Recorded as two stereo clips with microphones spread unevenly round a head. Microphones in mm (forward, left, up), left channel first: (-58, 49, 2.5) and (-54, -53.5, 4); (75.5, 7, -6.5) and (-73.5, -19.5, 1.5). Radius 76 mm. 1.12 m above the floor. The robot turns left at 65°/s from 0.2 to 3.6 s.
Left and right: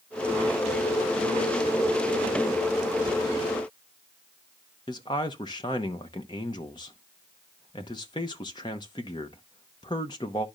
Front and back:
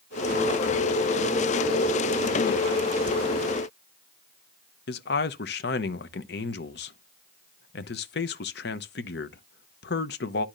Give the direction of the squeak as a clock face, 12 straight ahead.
No squeak in this recording.